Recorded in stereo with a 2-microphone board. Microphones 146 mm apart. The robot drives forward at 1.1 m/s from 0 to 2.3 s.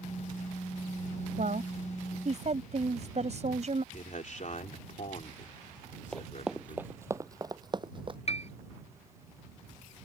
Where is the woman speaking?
60° right (ahead or behind); by 3.8 s 50° right (ahead or behind).